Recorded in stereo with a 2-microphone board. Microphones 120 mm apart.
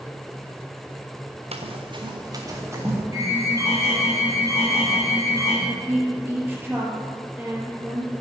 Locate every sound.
1.5 s running footsteps: 60° right (ahead or behind), 1.8 m; by 3.0 s 20° right (ahead or behind), 3.5 m
3.1 s an alarm: 25° right (ahead or behind), 5.5 m
5.7 s a woman speaking: 15° right (ahead or behind), 4.5 m